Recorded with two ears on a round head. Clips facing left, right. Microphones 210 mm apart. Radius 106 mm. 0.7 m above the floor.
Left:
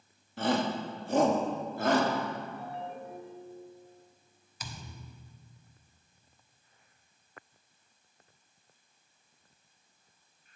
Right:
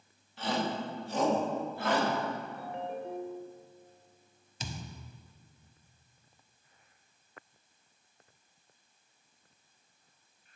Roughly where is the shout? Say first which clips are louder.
Left 4 dB; left.